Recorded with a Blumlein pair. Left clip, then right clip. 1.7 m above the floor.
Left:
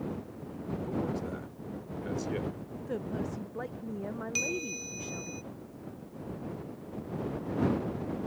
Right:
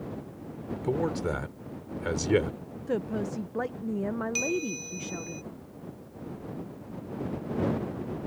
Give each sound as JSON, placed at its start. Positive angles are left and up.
{"t": 0.8, "sound": "a man speaking", "azimuth_deg": -30}
{"t": 2.9, "sound": "a woman speaking", "azimuth_deg": -20}
{"t": 4.3, "sound": "a bell", "azimuth_deg": 0}